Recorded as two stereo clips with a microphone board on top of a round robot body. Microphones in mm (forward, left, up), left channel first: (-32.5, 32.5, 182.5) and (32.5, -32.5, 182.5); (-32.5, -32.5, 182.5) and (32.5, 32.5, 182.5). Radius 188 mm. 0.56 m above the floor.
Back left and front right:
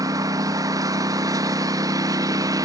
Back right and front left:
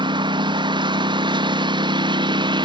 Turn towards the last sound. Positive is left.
turn(degrees=5)